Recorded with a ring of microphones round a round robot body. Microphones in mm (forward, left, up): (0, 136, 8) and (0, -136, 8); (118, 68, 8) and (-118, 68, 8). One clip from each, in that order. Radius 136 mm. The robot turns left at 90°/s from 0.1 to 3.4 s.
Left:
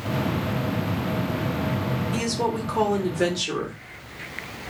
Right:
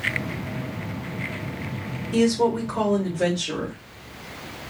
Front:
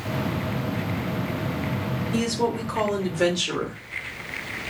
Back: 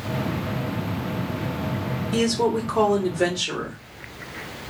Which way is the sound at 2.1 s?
Straight behind.